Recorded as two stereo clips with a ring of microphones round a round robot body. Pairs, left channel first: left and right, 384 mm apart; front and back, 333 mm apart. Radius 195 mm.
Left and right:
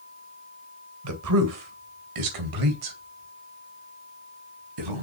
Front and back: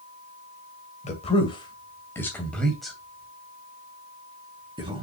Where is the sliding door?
I don't hear a sliding door.